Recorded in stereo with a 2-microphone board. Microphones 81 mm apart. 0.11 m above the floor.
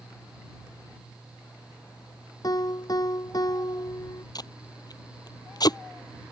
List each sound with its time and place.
2.4 s a piano: 50° left (ahead or behind)
4.3 s tape being pulled: 55° left (ahead or behind)